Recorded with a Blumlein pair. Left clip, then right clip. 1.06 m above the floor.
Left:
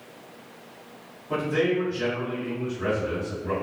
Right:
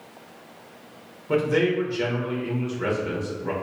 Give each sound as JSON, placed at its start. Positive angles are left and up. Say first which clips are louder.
{"t": 1.3, "sound": "a man speaking", "louder": "right 3 dB", "azimuth_deg": -60, "distance_m": 1.1}